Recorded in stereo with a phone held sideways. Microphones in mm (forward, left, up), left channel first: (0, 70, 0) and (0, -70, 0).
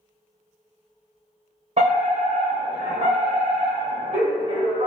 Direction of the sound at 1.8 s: 45° right (ahead or behind).